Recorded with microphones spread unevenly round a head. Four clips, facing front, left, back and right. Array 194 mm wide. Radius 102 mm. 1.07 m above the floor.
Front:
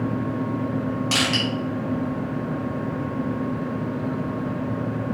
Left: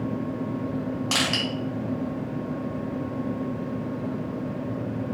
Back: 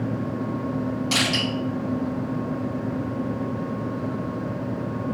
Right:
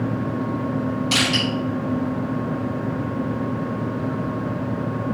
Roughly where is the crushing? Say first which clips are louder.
Right 3 dB, front 1 dB; left.